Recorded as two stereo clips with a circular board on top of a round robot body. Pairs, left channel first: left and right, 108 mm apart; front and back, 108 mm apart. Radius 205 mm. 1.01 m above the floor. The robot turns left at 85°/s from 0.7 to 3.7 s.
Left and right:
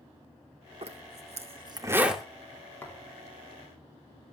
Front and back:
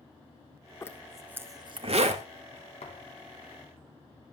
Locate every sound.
0.8 s a zipper: 60° right, 2.5 m; by 2.2 s 175° left, 2.5 m
2.8 s a thud: 20° left, 4.5 m; by 3.2 s 15° right, 4.5 m